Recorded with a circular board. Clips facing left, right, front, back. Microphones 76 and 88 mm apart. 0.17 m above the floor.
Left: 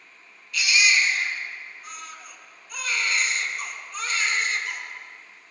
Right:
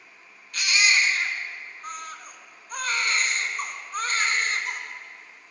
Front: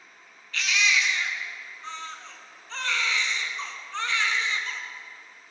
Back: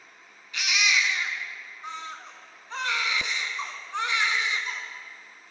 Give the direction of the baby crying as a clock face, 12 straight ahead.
4 o'clock.